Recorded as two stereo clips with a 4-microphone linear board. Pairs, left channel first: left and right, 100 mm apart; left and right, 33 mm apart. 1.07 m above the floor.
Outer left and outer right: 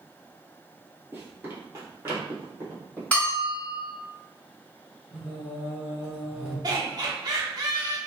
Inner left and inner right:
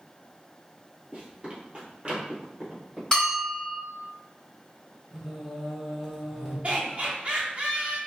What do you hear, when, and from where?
1.1 s running footsteps: 25° right (ahead or behind), 1.2 m
3.1 s a bell: 15° left (ahead or behind), 1.4 m
5.1 s singing: 10° right (ahead or behind), 1.0 m
6.6 s laughter: 40° right (ahead or behind), 0.9 m